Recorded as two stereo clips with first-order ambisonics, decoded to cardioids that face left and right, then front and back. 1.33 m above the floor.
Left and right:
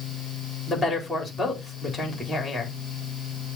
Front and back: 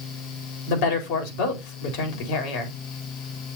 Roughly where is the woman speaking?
Ahead.